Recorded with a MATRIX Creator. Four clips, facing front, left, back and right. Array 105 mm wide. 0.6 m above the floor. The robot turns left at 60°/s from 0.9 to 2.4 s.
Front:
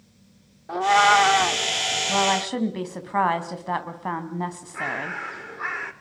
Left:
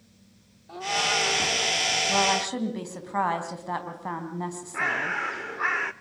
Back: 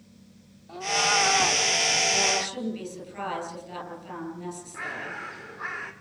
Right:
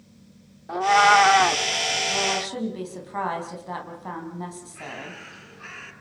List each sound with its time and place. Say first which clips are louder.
0.7 s a cat meowing: right 12 dB, front 10 dB; 45° right, 0.6 m; by 1.6 s 85° right, 0.6 m
2.1 s a woman speaking: left 5 dB, front 5 dB; 30° left, 4 m; by 5.2 s 10° left, 4 m
4.7 s a bird: left 9 dB, front 9 dB; 70° left, 1.3 m